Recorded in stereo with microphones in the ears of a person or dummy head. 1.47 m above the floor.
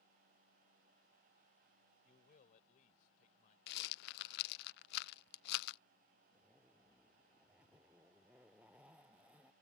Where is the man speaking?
50° left (ahead or behind).